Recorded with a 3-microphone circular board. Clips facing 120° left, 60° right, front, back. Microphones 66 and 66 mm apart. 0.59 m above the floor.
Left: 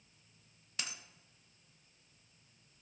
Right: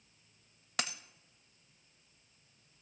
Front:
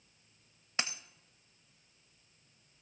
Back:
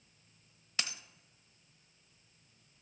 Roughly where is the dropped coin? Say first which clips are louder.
Right 7 dB, front 2 dB; ahead right.